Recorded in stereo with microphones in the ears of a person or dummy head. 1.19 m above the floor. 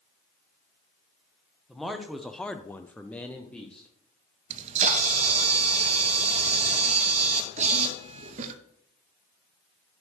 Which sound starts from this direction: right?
A camera shutter, at 4.5 s.